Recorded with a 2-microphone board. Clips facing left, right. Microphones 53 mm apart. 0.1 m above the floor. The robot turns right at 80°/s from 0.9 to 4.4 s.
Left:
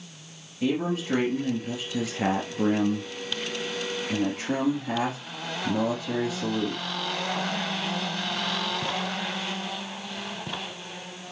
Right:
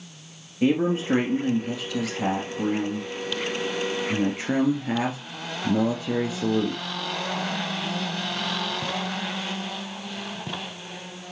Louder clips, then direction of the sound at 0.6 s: Right 5 dB; 50° right.